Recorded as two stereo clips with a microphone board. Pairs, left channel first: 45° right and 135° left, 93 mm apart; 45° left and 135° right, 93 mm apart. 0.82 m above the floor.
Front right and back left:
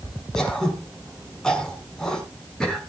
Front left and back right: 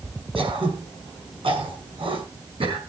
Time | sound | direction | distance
0.3 | throat clearing | 130° right | 5.5 m